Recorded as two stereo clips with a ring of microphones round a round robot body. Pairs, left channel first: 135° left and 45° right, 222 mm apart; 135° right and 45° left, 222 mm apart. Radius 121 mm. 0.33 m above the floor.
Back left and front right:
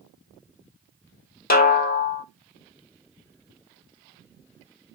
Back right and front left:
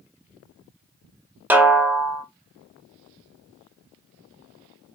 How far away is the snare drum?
About 0.7 m.